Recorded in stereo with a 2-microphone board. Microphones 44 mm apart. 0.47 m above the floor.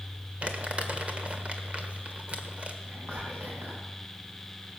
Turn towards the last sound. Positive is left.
turn(degrees=-70)  # may be behind; listen again after turning